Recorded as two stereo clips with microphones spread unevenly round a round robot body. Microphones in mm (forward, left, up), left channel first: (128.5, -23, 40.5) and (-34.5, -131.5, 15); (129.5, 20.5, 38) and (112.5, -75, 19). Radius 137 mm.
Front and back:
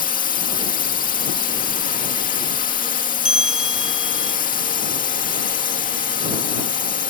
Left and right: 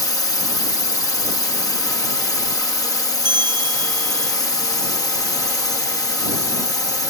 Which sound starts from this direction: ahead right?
A bell, at 3.2 s.